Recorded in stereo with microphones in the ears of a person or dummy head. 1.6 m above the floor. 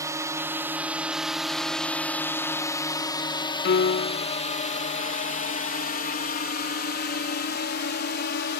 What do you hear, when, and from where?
0.0 s a drone: 15° right (ahead or behind); by 8.6 s 60° left (ahead or behind)
3.6 s a piano: 55° left (ahead or behind)